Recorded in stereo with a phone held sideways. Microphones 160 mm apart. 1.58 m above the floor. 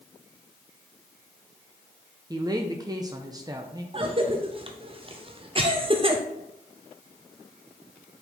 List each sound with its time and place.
2.3 s a woman speaking: 25° right (ahead or behind), 0.5 m
3.9 s a cough: 35° right (ahead or behind), 0.5 m